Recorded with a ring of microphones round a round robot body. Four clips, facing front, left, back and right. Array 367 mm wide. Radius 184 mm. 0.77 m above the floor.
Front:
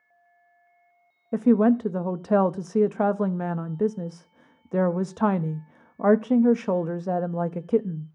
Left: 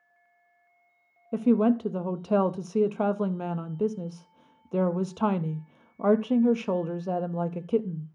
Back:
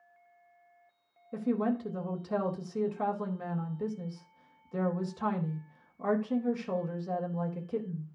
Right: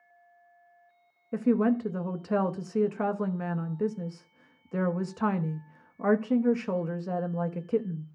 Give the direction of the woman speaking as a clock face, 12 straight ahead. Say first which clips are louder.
Left 2 dB, front 11 dB; 11 o'clock.